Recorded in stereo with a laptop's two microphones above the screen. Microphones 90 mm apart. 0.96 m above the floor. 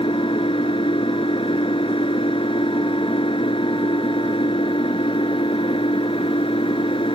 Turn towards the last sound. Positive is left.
turn(degrees=85)